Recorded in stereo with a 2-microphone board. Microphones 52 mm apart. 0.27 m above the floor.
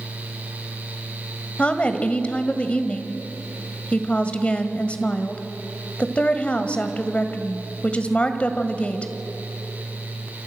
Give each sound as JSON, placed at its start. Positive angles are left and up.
{"t": 1.6, "sound": "a woman speaking", "side_deg": 25, "distance_m": 1.6}